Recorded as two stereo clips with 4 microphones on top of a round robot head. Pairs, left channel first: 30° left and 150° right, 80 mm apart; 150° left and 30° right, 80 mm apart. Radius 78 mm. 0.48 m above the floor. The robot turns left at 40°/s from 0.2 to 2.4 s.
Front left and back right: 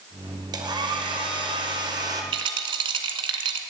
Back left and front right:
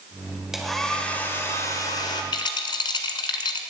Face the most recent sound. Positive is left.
turn(degrees=-175)